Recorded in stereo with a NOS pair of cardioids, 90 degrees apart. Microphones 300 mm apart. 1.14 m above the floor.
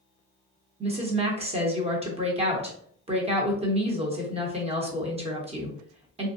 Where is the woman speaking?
20° right, 0.9 m.